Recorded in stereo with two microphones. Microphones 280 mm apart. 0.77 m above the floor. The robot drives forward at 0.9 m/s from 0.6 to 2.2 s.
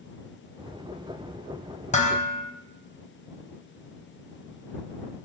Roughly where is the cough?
No cough in this recording.